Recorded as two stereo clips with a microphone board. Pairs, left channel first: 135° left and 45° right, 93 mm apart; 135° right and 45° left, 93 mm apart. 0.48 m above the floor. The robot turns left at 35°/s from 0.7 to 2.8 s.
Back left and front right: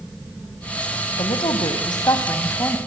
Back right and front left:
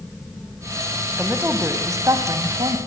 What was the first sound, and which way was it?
A woman speaking, 125° left.